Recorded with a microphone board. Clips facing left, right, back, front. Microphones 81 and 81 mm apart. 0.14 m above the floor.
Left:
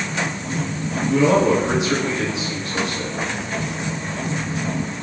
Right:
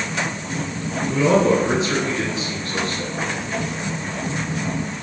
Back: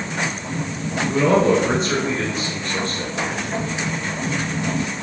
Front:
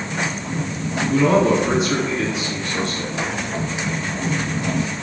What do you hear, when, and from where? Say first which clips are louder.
1.1 s a man speaking: left 1 dB, even; 165° left, 1.4 m